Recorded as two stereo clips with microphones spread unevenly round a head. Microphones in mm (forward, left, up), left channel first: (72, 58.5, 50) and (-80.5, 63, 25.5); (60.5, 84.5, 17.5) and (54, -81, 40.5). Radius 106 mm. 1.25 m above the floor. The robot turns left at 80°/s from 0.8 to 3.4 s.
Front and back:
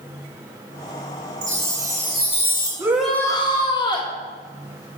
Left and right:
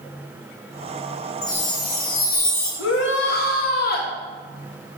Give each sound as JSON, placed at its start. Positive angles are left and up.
{"t": 1.4, "sound": "a chime", "azimuth_deg": 150, "distance_m": 2.5}
{"t": 2.8, "sound": "a shout", "azimuth_deg": 110, "distance_m": 1.5}